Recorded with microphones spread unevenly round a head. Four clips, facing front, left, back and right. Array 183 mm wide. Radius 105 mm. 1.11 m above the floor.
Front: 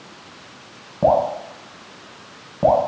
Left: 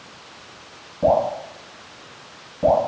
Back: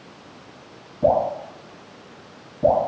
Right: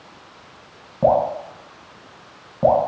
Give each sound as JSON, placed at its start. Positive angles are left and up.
{"t": 1.0, "sound": "dripping", "azimuth_deg": -25, "distance_m": 1.4}